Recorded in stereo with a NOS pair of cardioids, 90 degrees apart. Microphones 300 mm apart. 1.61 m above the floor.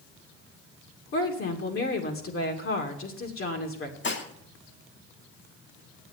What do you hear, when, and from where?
1.1 s a woman speaking: 45° left, 2.5 m
4.0 s dishes clattering: 40° left, 2.5 m